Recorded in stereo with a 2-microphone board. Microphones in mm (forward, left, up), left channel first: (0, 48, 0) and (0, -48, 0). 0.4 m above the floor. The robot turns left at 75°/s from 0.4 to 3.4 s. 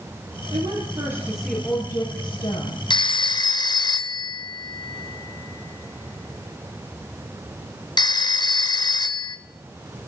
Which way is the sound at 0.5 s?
110° right.